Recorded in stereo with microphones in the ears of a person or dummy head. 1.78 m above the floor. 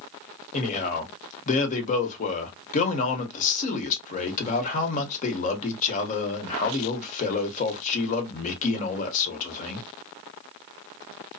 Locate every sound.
0.5 s a man speaking: 40° left (ahead or behind), 1.1 m